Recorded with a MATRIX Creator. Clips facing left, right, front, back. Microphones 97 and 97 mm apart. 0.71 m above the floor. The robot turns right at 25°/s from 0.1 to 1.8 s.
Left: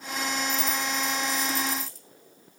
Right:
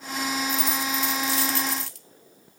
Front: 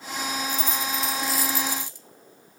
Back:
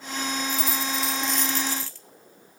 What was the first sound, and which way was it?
A dropped coin, 105° right.